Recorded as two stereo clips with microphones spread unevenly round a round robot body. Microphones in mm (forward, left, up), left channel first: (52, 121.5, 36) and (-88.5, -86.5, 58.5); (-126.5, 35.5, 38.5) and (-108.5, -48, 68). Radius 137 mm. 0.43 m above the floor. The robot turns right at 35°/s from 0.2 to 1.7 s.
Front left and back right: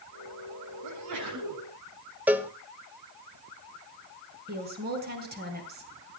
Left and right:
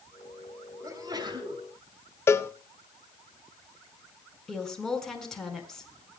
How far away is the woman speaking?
About 5 m.